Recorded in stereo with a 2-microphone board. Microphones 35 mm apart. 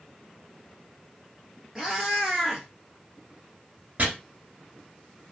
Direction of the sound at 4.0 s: 45° right (ahead or behind).